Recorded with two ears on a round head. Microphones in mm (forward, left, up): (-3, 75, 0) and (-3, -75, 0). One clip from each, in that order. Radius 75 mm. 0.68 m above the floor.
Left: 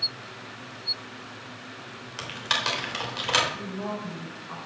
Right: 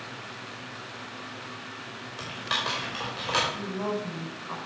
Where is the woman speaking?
75° right (ahead or behind), 3.5 m.